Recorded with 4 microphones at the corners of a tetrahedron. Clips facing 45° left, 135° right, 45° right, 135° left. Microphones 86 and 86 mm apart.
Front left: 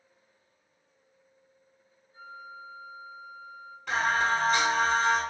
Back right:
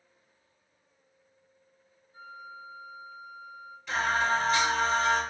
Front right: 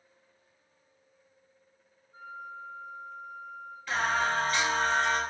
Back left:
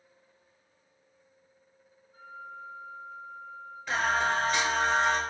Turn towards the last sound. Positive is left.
turn(degrees=70)